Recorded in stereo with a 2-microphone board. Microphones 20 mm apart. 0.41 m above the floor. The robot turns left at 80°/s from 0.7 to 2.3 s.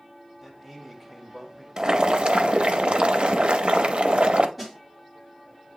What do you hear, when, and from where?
0.4 s a man speaking: 10° right (ahead or behind), 1.4 m; by 1.7 s 20° left (ahead or behind), 1.4 m
1.8 s boiling: 35° right, 0.5 m; by 4.5 s 80° right, 0.5 m
4.6 s a snare drum: 5° right (ahead or behind), 2.5 m